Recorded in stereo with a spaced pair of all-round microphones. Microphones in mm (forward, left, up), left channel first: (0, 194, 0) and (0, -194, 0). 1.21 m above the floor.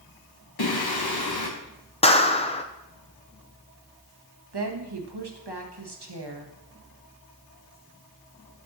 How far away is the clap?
About 0.5 m.